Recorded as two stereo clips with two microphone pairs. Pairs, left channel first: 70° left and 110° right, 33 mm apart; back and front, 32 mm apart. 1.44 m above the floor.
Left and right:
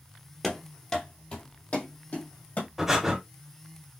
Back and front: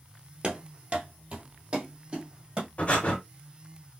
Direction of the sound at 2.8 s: Straight behind.